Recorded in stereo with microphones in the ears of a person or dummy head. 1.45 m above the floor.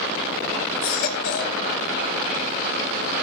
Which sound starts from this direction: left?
A baby crying, at 0.8 s.